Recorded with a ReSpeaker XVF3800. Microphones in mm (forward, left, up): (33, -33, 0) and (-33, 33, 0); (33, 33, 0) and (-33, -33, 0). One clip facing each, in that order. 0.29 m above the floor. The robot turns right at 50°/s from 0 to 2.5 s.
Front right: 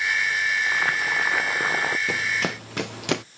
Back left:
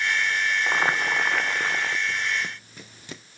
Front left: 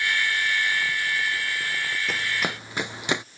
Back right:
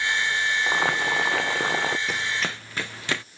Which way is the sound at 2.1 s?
50° right.